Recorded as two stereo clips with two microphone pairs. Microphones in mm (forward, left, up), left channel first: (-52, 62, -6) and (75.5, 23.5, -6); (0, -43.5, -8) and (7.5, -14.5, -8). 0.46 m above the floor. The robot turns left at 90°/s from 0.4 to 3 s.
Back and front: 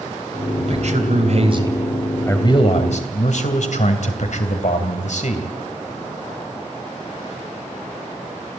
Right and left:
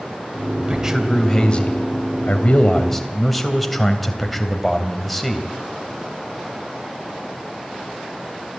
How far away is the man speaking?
About 3 m.